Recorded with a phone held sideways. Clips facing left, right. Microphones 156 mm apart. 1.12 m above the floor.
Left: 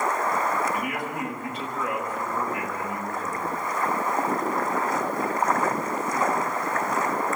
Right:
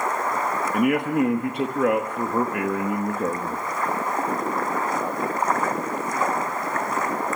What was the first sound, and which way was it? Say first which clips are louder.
A man speaking: right 9 dB; 60° right (ahead or behind).